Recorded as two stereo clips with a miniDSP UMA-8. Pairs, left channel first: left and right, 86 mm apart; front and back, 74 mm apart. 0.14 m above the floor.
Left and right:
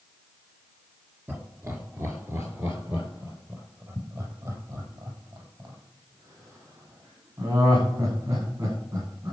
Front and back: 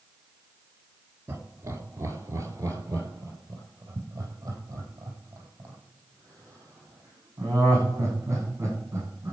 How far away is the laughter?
About 2 m.